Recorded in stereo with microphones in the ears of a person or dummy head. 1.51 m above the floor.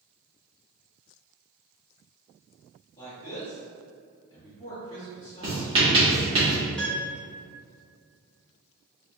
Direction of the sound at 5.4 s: 20° right (ahead or behind).